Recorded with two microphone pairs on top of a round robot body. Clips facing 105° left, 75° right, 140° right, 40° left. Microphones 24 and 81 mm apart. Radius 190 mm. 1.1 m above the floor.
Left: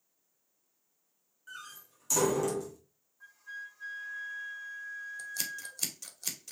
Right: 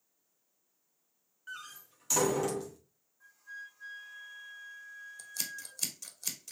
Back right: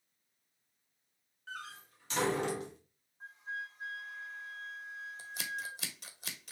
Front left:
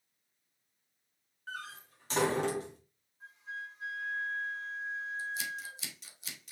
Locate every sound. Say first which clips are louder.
1.5 s a door slam: right 1 dB, front left 2 dB; 10° right, 2 m
3.2 s a flute: left 3 dB, back right 1 dB; 170° left, 2.5 m
5.2 s scissors: even, front left 3 dB; 175° right, 1.4 m